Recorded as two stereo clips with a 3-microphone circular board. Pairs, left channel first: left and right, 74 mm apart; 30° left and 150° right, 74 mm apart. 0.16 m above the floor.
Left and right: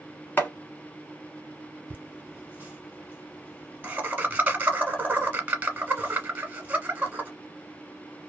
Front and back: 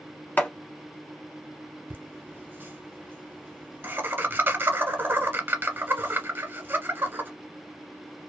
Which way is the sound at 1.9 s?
135° right.